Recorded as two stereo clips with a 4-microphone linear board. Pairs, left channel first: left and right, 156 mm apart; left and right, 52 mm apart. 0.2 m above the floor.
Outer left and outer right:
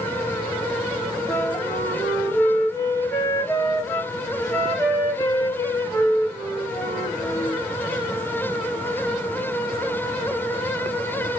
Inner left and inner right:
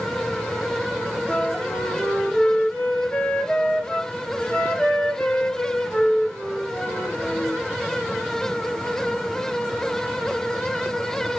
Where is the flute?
25° left (ahead or behind), 1.0 m.